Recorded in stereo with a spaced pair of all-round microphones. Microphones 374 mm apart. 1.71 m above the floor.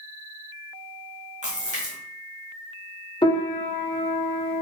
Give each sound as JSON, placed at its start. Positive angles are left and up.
{"t": 1.4, "sound": "a splash", "side_deg": -20, "distance_m": 1.0}
{"t": 3.2, "sound": "a piano", "side_deg": 15, "distance_m": 0.6}